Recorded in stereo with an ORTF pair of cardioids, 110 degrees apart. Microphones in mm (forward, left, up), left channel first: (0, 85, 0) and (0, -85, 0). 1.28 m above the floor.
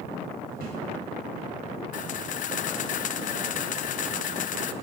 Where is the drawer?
65° right, 4 m.